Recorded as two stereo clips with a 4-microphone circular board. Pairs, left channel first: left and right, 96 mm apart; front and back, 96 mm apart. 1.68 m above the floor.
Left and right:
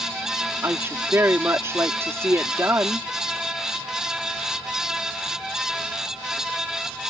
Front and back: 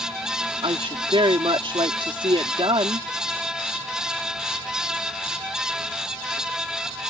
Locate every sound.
0.6 s a woman speaking: 155° right